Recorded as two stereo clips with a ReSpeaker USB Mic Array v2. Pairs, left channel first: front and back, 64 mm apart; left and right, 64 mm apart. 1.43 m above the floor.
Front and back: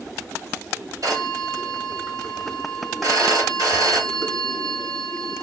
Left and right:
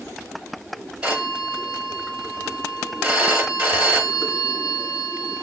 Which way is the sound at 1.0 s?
160° right.